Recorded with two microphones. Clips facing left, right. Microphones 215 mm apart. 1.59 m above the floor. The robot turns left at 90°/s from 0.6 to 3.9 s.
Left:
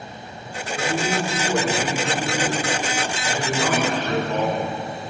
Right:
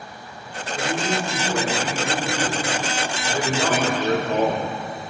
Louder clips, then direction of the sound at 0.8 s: Left 1 dB; 175° right.